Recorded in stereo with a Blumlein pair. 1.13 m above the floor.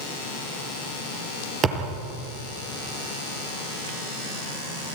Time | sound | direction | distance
1.6 | a thud | 25° right | 5 m